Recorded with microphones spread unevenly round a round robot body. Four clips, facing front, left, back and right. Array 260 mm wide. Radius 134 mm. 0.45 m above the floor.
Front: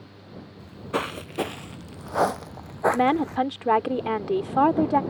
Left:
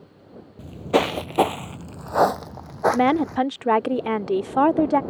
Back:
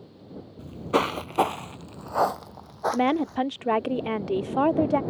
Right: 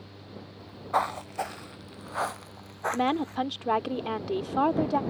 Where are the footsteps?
115° left; by 3.4 s 45° left.